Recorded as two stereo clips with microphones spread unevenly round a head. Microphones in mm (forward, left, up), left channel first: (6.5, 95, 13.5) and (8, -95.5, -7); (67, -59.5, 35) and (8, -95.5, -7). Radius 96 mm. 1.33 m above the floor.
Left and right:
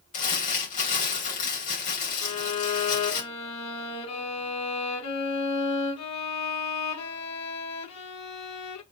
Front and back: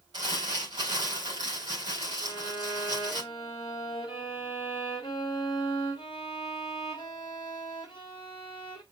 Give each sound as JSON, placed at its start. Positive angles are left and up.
{"t": 0.1, "sound": "crumpling", "azimuth_deg": 140, "distance_m": 3.5}
{"t": 2.2, "sound": "a violin", "azimuth_deg": 95, "distance_m": 1.5}